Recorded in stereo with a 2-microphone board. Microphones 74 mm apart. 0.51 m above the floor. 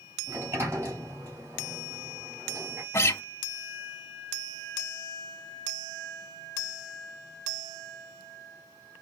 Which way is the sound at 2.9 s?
35° left (ahead or behind).